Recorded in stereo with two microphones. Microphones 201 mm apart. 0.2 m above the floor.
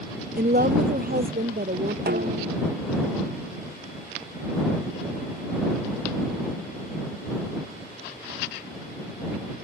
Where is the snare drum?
55° right (ahead or behind).